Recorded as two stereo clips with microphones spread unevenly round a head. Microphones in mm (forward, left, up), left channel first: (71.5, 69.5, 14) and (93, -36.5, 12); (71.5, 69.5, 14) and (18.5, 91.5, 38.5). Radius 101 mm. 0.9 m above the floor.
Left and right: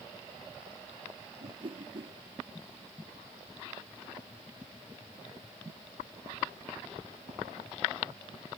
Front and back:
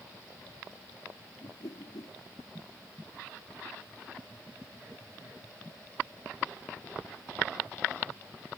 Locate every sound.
1.4 s a whoosh: 35° right